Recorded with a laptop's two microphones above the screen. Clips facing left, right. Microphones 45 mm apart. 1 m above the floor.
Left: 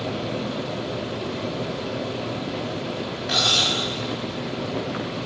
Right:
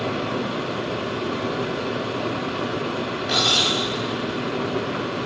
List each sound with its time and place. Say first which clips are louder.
0.0 s a fan: right 3 dB; 70° right (ahead or behind), 4.5 m
3.3 s cutlery clinking: right 1 dB; 5° right (ahead or behind), 4.5 m